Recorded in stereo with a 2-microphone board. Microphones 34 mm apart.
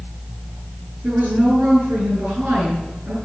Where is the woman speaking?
60° right (ahead or behind), 7.5 m.